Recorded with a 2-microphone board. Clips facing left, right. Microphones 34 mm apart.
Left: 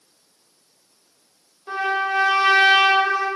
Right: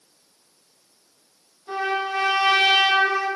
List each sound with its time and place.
1.7 s a trumpet: 40° left (ahead or behind), 0.8 m